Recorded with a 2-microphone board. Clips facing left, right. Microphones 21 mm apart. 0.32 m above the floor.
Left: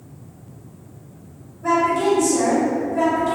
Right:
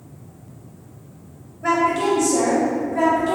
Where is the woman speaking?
35° right (ahead or behind), 1.7 m; by 3.4 s 5° left (ahead or behind), 1.4 m.